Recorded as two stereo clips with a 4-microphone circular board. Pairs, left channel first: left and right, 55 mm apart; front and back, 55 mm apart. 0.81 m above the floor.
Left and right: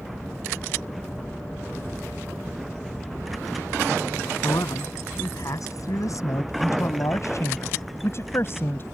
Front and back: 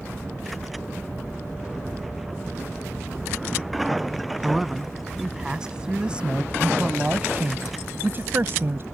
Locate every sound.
4.4 s a man speaking: 95° left; by 8.8 s 140° left